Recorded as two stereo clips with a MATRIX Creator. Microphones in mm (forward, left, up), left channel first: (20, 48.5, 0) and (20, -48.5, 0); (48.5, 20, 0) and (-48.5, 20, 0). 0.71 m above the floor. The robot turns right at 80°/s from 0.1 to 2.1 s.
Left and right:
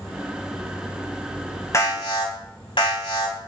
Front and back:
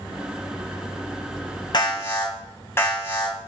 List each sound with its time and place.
1.7 s an alarm: 35° left, 4 m; by 3.4 s 65° left, 4 m